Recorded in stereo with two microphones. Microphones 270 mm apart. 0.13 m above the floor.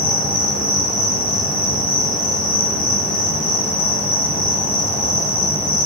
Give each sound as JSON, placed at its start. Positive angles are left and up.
{"t": 0.0, "sound": "an insect", "side_deg": 30, "distance_m": 2.0}